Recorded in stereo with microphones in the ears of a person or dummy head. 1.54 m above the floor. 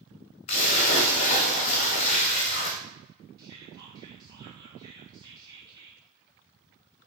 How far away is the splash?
About 0.7 m.